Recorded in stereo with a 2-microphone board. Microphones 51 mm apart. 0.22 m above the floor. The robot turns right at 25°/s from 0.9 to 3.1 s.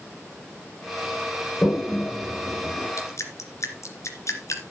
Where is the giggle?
I don't hear a giggle.